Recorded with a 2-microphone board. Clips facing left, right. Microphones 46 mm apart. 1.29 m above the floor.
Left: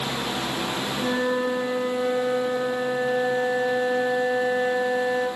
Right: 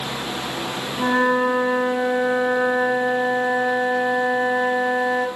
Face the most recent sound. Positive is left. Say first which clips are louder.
# right 7 dB
turn(degrees=-70)  # may be behind; listen again after turning